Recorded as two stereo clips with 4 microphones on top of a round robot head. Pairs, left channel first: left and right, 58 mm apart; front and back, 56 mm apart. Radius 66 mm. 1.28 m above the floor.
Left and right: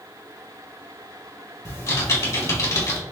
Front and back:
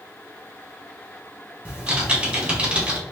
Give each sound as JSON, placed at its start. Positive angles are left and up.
{"t": 1.6, "sound": "typing on a keyboard", "azimuth_deg": 110, "distance_m": 1.9}